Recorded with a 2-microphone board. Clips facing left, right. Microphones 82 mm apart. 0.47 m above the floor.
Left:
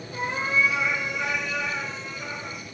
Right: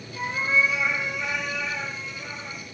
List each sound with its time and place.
0.1 s a cat meowing: 75° left (ahead or behind), 1.9 m